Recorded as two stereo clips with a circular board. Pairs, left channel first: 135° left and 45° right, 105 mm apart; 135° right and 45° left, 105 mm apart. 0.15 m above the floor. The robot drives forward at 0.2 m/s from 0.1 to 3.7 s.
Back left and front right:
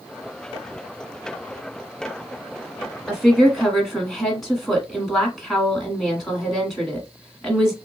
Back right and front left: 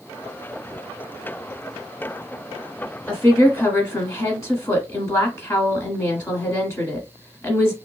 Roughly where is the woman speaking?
Behind right.